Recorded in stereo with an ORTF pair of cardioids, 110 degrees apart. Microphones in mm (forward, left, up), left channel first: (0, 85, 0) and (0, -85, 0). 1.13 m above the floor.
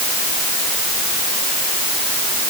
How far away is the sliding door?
No sliding door in this recording.